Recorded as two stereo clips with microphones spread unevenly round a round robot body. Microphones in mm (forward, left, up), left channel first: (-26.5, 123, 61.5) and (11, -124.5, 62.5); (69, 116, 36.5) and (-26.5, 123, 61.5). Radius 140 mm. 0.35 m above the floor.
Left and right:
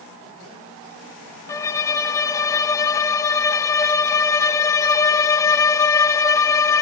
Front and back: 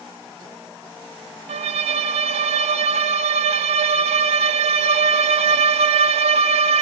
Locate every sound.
1.5 s a violin: 175° left, 0.5 m